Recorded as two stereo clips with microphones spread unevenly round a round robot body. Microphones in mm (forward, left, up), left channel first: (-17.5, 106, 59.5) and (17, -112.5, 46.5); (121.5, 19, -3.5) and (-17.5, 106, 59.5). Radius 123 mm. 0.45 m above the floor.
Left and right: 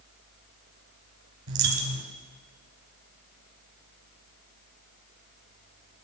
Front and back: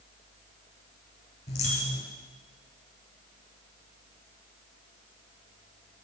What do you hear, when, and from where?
1.5 s a dropped coin: 95° right, 1.7 m